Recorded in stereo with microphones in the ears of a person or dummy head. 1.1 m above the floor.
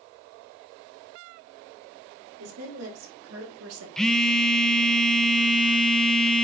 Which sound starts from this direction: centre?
A phone buzzing, at 4.0 s.